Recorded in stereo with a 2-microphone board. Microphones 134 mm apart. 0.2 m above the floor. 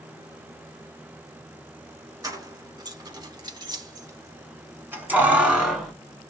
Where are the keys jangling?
25° right (ahead or behind), 1.4 m; by 5.9 s 5° right (ahead or behind), 1.5 m.